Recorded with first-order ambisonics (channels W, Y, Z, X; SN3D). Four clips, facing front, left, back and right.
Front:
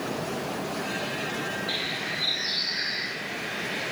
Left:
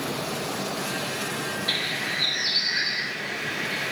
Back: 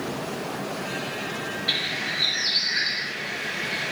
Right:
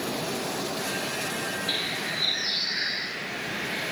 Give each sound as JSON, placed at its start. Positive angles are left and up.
{"t": 1.7, "sound": "a bird", "azimuth_deg": 150, "distance_m": 2.5}